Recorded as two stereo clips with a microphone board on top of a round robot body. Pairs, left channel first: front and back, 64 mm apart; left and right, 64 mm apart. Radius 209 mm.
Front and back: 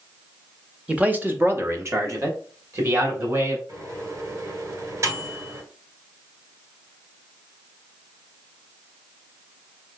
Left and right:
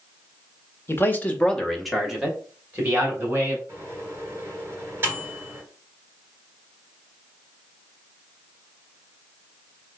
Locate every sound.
0.9 s a man speaking: 115° left, 1.4 m; by 3.6 s 150° right, 2.5 m
3.7 s a microwave: 145° right, 3 m